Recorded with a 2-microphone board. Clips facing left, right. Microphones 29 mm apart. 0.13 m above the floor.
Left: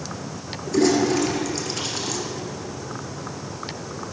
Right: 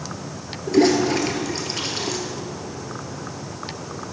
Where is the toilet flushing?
20° right (ahead or behind), 1.8 m.